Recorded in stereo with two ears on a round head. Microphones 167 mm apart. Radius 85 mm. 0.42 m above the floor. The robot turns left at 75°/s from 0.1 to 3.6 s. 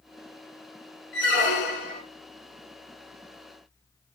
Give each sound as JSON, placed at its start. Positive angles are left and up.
{"t": 1.1, "sound": "a squeak", "azimuth_deg": 105, "distance_m": 0.6}